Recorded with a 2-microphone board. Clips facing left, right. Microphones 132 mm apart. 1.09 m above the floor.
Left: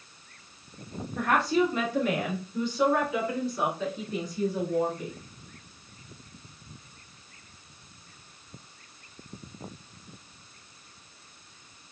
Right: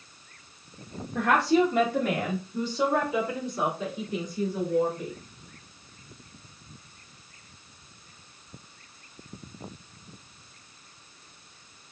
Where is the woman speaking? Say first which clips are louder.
Right 3 dB; 80° right, 0.9 m; by 5.1 s 15° right (ahead or behind), 4 m.